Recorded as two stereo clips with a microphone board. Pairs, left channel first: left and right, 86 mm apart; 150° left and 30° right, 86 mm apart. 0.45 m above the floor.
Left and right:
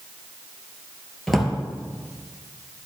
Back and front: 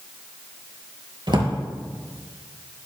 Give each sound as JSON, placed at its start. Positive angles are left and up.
{"t": 1.3, "sound": "a drawer", "azimuth_deg": 0, "distance_m": 3.0}